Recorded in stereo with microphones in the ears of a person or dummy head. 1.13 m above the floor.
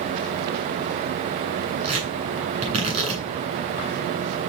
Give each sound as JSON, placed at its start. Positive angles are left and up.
{"t": 1.8, "sound": "tearing paper", "side_deg": -35, "distance_m": 9.5}